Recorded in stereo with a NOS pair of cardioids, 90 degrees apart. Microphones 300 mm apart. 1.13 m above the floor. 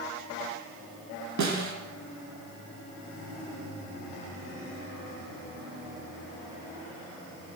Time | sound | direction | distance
1.4 | a snare drum | 65° right | 3 m